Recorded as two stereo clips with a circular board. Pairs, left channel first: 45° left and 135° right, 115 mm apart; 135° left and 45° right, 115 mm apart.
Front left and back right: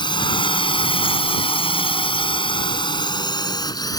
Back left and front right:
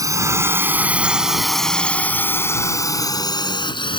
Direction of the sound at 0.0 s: 10° left.